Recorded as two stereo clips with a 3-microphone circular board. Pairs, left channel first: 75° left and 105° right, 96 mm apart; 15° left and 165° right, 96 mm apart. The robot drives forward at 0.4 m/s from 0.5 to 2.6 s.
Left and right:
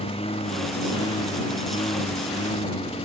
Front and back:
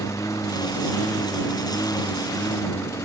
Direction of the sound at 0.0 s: 70° left.